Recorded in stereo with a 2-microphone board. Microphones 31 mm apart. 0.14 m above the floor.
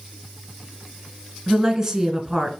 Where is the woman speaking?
15° right (ahead or behind), 1.6 m.